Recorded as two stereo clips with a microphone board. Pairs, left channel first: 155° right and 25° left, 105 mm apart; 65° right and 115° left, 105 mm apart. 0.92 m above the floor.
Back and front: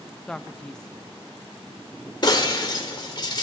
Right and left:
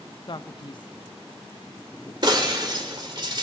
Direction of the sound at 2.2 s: 155° left.